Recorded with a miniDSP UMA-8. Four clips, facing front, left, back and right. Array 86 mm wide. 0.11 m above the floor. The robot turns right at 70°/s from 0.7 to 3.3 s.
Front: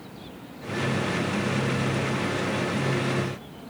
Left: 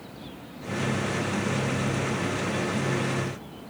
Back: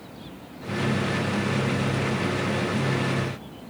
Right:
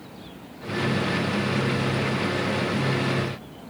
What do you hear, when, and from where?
Only background noise.